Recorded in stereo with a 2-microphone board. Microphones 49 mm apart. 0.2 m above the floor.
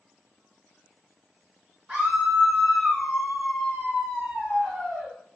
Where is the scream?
20° right (ahead or behind), 1.8 m; by 5.1 s centre (ahead or behind), 1.7 m.